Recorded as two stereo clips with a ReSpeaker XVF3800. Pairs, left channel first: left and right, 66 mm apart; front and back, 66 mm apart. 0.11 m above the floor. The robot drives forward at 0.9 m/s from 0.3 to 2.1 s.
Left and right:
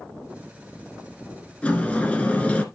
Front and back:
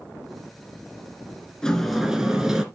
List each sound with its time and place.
1.6 s a sliding door: 60° left, 1.3 m; by 2.6 s 115° left, 1.3 m